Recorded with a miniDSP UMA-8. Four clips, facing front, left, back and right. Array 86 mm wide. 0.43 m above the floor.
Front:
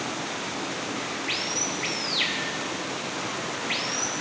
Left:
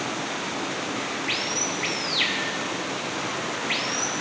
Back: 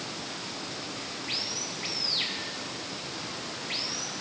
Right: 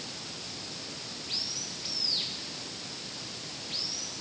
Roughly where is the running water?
Ahead left.